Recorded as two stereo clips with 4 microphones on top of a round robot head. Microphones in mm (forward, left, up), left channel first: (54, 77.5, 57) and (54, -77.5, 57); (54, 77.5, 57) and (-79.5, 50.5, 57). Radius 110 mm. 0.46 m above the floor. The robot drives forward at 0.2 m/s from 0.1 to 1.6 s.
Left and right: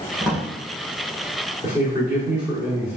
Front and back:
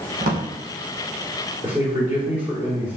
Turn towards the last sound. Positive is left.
turn(degrees=-145)